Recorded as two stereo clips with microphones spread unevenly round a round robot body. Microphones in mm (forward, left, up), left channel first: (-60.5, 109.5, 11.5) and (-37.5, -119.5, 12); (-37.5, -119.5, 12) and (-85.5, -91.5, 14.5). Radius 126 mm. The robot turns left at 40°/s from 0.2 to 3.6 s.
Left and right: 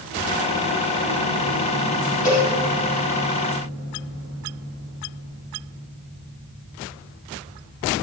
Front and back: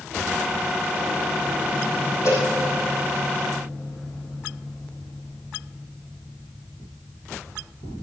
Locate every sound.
2.2 s a cowbell: 35° left, 4 m; by 2.5 s 25° left, 4 m